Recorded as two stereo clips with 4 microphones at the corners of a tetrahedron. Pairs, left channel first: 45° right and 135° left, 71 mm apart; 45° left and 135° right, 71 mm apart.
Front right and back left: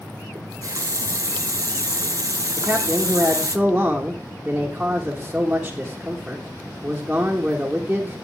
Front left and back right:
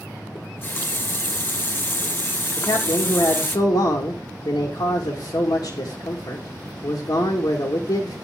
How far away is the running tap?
About 0.6 m.